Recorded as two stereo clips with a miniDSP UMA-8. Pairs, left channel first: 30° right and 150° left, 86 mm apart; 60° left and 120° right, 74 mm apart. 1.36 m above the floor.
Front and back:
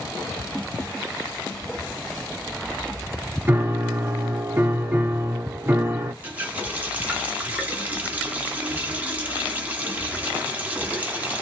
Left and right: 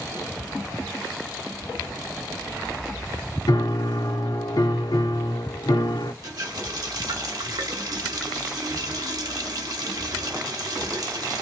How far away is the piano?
About 0.7 m.